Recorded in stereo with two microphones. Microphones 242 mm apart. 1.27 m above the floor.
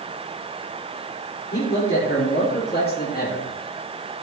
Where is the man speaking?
45° left (ahead or behind), 4 m; by 3.5 s 35° left (ahead or behind), 1.8 m.